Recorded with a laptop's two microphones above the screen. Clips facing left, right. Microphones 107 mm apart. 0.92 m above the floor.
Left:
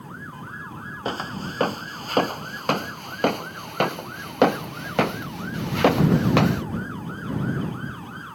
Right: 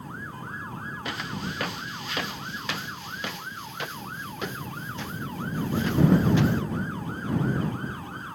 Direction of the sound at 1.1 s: 35° left (ahead or behind).